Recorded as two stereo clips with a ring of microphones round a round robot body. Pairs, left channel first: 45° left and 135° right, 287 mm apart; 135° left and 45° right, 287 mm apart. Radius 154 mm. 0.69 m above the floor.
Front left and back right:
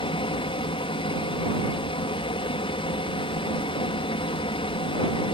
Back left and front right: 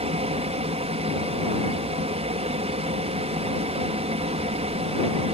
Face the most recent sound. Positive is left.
turn(degrees=-5)